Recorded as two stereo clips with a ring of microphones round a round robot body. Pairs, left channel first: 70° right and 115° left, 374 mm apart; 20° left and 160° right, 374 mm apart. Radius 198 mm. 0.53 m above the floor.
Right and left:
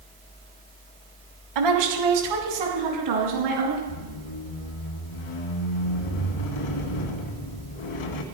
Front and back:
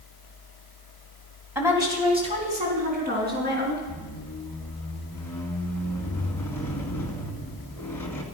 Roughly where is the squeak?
Ahead right.